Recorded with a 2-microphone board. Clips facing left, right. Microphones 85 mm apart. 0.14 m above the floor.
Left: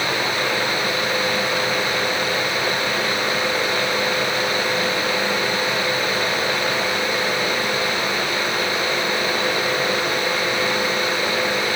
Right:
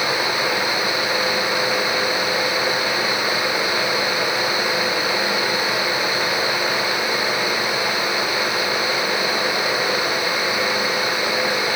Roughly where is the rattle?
No rattle in this recording.